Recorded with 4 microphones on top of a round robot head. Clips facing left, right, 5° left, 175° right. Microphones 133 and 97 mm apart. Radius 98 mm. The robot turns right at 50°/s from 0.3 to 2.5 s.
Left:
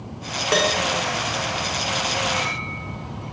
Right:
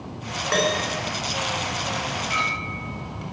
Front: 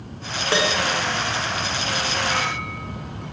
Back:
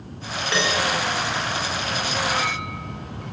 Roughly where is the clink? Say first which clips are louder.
Left 2 dB, even; right.